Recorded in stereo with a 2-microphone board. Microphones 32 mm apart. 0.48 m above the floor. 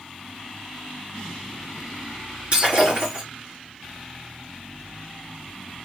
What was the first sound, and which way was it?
Breaking glass, 35° right (ahead or behind).